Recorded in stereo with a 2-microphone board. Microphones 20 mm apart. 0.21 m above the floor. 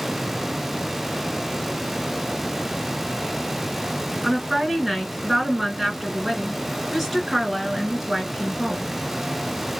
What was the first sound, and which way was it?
A woman speaking, 10° right (ahead or behind).